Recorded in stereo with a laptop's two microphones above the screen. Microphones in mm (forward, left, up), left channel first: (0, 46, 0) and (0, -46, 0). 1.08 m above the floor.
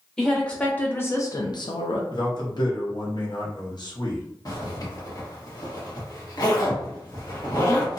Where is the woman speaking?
5° left (ahead or behind), 1.3 m; by 2.0 s 80° left, 0.6 m.